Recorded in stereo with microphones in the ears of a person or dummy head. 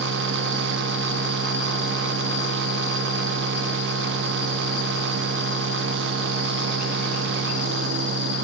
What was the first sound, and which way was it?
A machine running, 70° right (ahead or behind).